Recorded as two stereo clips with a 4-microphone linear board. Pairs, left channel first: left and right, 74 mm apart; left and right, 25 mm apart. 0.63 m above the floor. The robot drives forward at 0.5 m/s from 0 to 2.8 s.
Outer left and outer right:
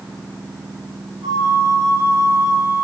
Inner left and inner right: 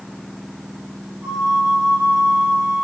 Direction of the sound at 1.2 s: 80° right.